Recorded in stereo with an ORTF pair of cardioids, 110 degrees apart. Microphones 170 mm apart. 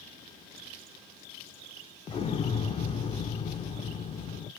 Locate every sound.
2.1 s an explosion: 35° left, 0.7 m